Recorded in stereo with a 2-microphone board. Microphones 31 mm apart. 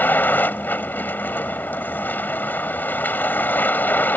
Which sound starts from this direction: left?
A vehicle, at 0.0 s.